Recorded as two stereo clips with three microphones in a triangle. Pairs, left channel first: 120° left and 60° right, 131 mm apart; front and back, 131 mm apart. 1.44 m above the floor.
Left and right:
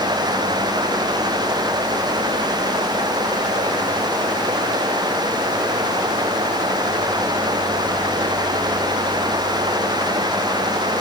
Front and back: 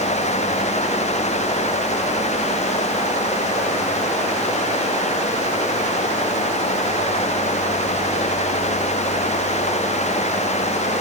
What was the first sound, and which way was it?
Only background noise.